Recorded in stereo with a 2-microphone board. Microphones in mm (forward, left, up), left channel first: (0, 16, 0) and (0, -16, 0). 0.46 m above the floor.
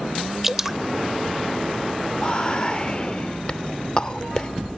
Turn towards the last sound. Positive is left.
turn(degrees=30)  # may be behind; listen again after turning